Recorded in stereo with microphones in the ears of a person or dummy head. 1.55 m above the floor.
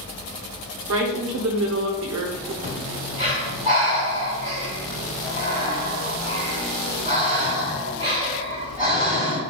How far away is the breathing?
About 1.7 m.